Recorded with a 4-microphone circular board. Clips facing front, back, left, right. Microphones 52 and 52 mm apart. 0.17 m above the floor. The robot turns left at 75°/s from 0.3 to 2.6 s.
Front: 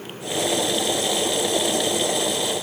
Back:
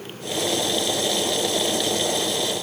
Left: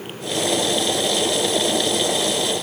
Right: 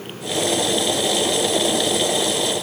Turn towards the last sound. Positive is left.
No sound to turn to.